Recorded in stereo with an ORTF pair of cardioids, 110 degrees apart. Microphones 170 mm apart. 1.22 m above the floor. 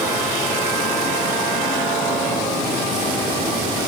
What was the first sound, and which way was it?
Only background noise.